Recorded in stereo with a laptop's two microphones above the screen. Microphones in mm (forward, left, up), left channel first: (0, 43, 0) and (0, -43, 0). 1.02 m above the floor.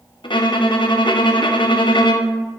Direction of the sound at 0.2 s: 70° left (ahead or behind).